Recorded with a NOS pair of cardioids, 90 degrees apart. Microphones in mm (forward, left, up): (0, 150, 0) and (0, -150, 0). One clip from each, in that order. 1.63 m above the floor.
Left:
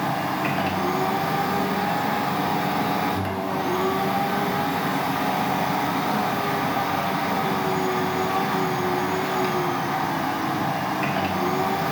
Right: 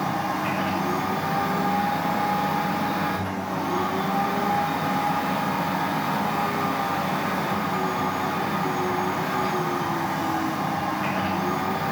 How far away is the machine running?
About 1.1 m.